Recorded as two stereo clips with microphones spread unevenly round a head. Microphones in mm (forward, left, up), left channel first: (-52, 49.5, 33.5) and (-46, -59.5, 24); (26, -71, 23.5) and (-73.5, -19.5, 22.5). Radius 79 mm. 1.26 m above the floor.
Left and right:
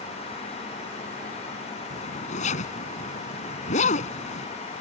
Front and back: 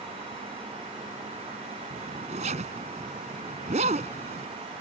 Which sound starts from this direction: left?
A zipper, at 1.9 s.